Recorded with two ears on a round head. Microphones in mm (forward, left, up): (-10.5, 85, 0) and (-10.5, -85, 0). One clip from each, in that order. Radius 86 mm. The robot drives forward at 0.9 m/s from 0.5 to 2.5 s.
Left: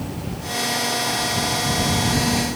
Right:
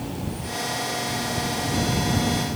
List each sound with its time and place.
Only background noise.